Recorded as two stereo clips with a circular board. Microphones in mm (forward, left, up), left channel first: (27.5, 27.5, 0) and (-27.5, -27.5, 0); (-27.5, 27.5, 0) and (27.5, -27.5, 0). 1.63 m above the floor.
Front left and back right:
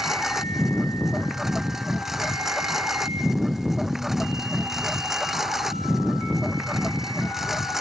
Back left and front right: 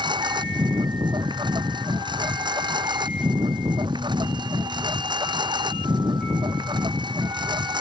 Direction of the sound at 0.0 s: 50° right.